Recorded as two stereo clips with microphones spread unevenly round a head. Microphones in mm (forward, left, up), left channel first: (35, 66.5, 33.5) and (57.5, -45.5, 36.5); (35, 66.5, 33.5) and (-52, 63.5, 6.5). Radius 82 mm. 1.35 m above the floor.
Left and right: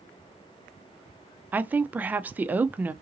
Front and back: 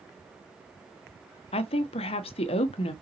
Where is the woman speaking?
5° right, 0.5 m.